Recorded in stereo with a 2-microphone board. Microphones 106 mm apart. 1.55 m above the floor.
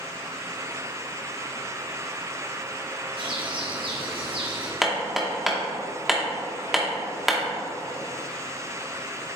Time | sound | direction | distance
3.2 | a bird | 55° right (ahead or behind) | 1.2 m
4.8 | hammering | centre (ahead or behind) | 1.1 m